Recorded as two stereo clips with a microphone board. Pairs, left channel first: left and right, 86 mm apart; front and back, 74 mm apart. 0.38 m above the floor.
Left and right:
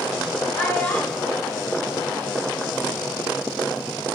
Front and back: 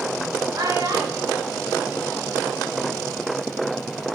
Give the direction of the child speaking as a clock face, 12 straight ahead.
7 o'clock.